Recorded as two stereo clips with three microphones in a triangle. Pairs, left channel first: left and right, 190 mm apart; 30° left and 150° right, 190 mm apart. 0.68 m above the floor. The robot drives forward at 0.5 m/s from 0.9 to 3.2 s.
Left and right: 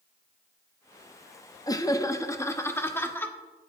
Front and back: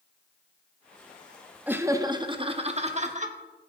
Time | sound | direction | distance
1.7 | laughter | 140° left | 0.7 m